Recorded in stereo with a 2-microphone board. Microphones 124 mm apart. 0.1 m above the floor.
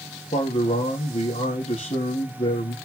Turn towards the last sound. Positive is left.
turn(degrees=65)  # may be behind; listen again after turning